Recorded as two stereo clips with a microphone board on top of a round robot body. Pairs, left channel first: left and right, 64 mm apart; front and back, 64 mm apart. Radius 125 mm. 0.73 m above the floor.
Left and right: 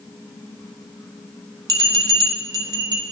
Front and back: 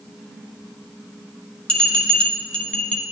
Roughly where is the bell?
Right.